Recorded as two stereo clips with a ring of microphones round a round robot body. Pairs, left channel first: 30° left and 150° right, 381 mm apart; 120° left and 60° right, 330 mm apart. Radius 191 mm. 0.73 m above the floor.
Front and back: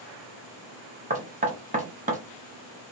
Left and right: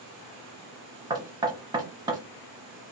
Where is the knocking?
120° right, 0.6 m.